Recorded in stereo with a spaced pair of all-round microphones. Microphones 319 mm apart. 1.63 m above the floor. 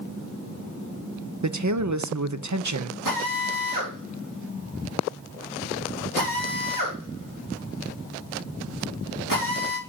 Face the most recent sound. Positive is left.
turn(degrees=-85)